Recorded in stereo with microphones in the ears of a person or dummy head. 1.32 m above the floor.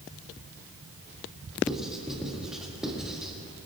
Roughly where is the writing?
Centre.